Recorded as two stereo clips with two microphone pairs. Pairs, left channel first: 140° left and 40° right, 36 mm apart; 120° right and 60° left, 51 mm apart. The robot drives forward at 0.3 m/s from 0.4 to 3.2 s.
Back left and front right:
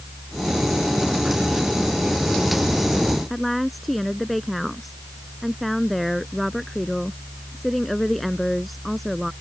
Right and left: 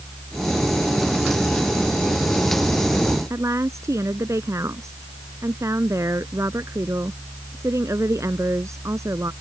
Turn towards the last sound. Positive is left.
turn(degrees=50)